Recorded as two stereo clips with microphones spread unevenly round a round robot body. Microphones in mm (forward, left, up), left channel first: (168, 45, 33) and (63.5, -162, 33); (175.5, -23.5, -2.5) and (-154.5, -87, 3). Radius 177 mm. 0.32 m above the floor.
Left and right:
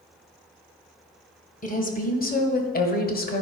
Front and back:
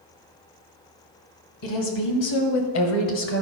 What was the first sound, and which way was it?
A woman speaking, 15° left.